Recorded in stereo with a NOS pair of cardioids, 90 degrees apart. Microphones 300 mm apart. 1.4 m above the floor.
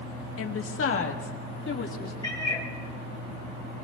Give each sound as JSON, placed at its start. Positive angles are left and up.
{"t": 0.4, "sound": "a woman speaking", "azimuth_deg": 50, "distance_m": 1.7}
{"t": 2.2, "sound": "a cat meowing", "azimuth_deg": 15, "distance_m": 2.5}